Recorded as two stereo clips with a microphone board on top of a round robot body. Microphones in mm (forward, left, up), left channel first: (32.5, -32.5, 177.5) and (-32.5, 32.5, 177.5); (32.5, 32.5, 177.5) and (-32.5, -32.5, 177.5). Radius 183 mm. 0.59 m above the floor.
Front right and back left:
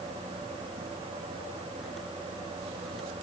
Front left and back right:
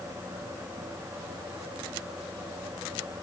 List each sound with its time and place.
Only background noise.